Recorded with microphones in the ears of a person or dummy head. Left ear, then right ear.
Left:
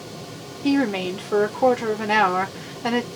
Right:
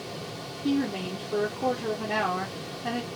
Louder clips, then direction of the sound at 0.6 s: Left 7 dB; 40° left (ahead or behind).